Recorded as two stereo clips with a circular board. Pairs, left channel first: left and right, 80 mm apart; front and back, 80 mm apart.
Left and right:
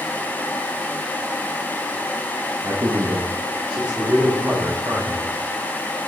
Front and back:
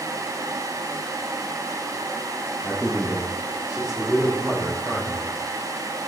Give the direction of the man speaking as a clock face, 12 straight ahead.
4 o'clock.